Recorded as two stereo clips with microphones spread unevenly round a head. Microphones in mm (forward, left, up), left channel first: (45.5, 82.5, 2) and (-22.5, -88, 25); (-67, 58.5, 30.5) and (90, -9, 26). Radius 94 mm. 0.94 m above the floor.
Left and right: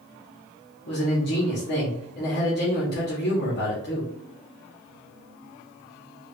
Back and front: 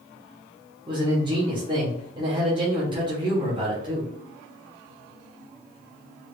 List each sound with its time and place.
0.9 s a man speaking: 40° left, 1.5 m